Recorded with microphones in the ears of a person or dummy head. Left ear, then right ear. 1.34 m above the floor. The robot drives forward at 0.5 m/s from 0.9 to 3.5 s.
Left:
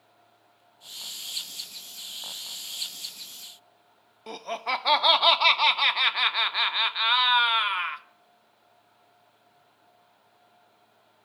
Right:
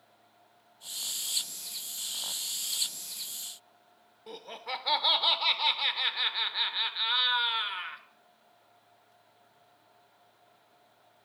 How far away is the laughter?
About 0.6 m.